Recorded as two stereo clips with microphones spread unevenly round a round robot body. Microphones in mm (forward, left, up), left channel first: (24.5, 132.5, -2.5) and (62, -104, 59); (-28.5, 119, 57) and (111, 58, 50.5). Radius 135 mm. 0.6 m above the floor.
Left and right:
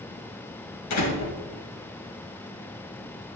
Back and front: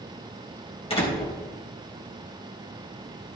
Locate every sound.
0.9 s a door slam: 105° left, 3 m